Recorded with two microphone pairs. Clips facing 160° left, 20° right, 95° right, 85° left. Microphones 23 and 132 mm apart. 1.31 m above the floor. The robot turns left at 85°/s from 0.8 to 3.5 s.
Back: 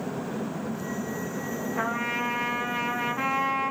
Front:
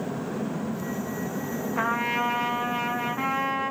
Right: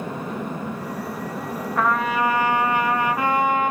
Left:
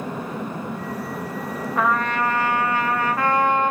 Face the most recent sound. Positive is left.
turn(degrees=-145)